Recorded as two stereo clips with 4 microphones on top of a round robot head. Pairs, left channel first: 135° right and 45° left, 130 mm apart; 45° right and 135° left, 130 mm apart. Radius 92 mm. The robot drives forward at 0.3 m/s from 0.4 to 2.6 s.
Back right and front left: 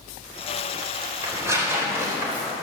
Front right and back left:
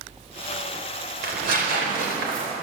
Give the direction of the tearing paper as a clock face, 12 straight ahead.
8 o'clock.